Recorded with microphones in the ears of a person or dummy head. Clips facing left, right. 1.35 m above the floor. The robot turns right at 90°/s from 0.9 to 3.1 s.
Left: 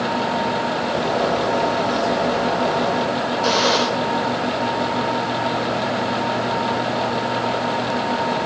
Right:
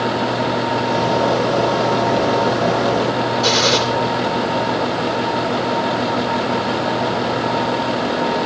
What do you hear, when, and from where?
3.4 s a gunshot: 40° right (ahead or behind), 3 m